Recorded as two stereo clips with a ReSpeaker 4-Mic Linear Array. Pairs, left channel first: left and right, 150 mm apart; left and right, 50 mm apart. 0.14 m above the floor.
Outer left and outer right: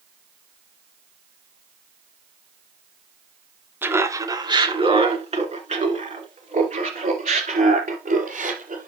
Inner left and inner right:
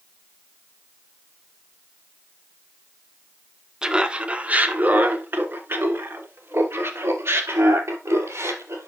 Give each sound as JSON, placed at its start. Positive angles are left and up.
{"t": 3.8, "sound": "laughter", "side_deg": -15, "distance_m": 1.1}